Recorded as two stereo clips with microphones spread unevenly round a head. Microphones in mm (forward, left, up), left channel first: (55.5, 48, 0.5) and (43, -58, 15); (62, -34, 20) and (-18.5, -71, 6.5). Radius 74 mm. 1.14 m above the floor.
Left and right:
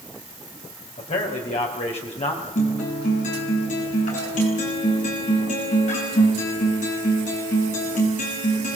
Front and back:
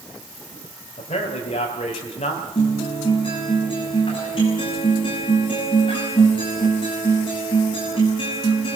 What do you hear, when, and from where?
1.0 s a man speaking: 65° left, 4 m
2.5 s a guitar: 85° left, 7 m